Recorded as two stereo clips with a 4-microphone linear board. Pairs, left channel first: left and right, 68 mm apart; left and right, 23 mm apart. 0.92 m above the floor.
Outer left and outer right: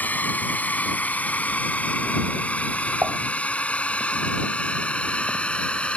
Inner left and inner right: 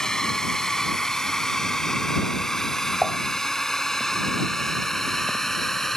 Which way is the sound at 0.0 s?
25° left (ahead or behind).